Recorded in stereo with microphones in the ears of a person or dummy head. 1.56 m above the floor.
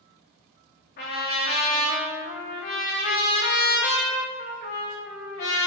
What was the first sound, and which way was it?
A trumpet, 35° left (ahead or behind).